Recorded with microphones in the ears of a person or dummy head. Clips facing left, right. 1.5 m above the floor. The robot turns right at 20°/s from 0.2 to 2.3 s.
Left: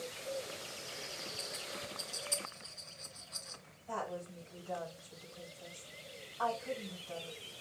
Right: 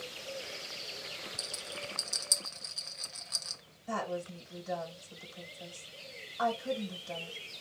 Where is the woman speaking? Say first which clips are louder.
Right 5 dB; 75° right (ahead or behind), 2.5 m.